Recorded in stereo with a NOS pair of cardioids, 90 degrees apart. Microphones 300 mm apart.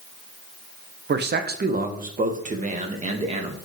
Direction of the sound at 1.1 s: 35° right.